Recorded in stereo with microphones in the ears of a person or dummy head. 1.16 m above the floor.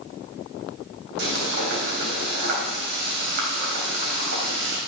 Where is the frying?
65° right (ahead or behind), 2.5 m.